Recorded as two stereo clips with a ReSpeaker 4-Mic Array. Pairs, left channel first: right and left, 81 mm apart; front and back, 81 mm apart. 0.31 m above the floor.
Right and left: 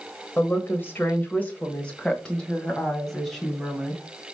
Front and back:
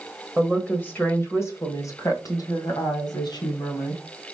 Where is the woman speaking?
65° right, 1.4 m; by 4.0 s straight ahead, 2.5 m.